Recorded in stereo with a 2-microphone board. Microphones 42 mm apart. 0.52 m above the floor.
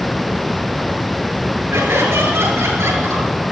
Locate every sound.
1.7 s laughter: 85° right, 8 m